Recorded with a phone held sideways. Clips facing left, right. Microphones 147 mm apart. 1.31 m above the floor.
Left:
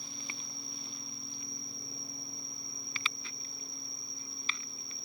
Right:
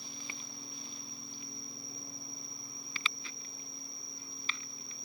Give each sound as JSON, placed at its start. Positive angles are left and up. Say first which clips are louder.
{"t": 0.0, "sound": "an insect", "louder": "left 1 dB", "side_deg": 75, "distance_m": 1.7}